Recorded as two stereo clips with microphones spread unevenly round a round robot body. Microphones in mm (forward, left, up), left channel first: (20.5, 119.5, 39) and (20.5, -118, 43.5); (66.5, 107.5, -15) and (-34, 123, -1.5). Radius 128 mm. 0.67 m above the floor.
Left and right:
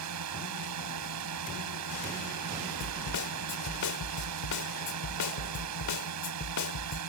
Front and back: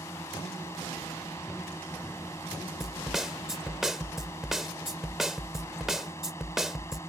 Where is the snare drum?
85° left.